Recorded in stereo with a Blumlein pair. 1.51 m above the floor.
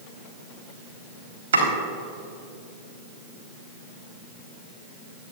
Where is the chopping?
65° right, 3.5 m.